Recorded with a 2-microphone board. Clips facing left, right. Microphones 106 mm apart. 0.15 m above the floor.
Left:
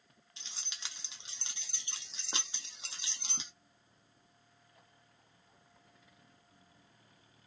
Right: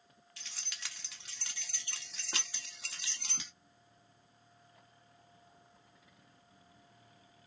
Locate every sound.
0.4 s keys jangling: 25° left (ahead or behind), 0.8 m